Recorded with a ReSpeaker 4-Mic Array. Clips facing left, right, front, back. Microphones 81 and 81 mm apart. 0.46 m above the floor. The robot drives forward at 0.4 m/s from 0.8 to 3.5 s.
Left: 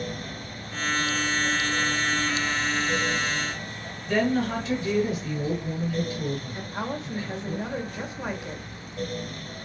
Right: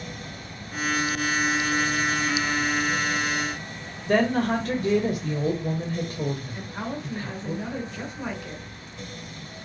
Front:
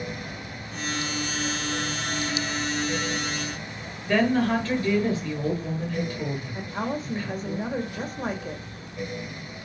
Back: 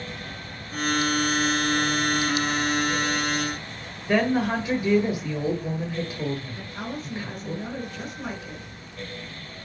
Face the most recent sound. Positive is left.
turn(degrees=25)